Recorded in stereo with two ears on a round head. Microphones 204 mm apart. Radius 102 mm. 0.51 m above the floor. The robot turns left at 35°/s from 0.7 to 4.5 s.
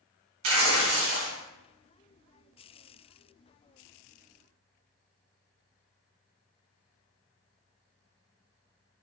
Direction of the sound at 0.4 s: 60° right (ahead or behind).